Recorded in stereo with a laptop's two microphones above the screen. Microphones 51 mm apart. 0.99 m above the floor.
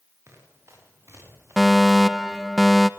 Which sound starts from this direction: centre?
A fire alarm, at 1.6 s.